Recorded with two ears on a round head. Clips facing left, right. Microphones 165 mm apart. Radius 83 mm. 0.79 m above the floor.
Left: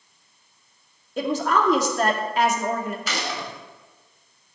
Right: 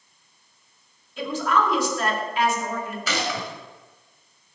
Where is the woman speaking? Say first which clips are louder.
Left 2 dB; 35° left (ahead or behind), 2.0 m.